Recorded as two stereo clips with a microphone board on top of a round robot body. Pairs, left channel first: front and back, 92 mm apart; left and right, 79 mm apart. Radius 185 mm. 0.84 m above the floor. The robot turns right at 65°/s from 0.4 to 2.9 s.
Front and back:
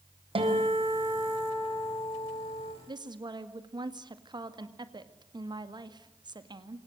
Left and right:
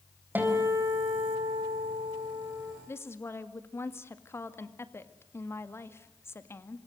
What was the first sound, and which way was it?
A guitar, 160° right.